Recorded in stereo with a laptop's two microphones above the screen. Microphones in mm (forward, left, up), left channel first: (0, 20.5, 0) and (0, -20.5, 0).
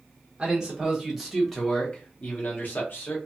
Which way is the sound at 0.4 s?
20° right (ahead or behind).